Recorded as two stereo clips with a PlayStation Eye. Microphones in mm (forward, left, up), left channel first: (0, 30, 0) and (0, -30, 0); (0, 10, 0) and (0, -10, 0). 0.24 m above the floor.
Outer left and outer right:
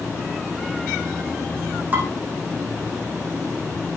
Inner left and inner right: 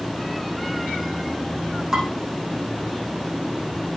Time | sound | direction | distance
1.9 | dishes clattering | 30° right (ahead or behind) | 7 m